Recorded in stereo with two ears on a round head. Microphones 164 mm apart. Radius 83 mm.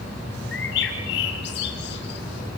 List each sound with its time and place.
0.5 s a bird: 65° left (ahead or behind), 2.5 m